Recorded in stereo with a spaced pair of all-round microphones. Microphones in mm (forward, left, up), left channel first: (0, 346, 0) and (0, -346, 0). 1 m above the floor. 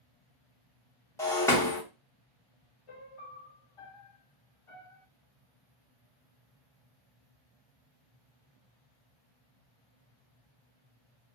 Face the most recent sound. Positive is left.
turn(degrees=50)  # may be behind; listen again after turning